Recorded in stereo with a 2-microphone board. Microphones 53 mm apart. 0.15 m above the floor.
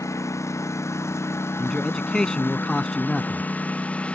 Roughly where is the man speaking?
Centre.